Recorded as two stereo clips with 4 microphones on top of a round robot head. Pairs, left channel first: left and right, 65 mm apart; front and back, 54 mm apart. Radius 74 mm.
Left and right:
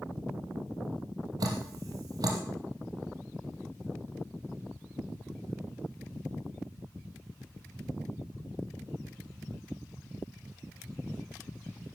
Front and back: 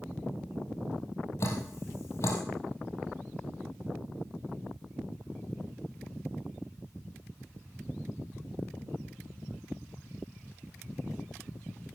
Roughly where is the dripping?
Ahead right.